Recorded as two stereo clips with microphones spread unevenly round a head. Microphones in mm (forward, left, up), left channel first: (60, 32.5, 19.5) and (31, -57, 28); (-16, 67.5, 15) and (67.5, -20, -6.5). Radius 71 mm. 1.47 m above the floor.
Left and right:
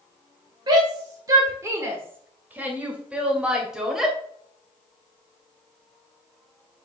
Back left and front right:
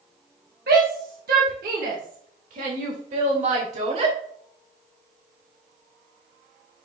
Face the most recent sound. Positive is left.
turn(degrees=-20)